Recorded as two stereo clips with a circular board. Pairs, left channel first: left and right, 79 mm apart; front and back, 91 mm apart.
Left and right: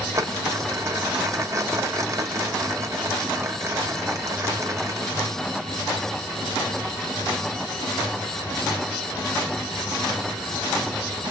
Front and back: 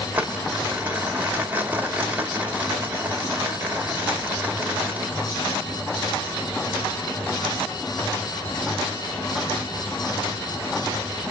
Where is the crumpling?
115° right, 1.1 m.